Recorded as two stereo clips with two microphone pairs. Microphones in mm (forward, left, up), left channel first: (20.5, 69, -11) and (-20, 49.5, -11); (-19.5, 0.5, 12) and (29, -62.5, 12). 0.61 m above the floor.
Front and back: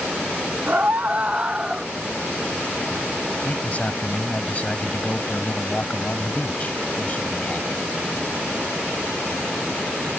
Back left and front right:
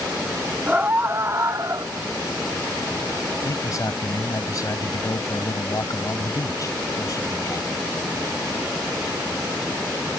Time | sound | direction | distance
0.7 | a scream | 120° right | ?
3.4 | a man speaking | 85° left | ?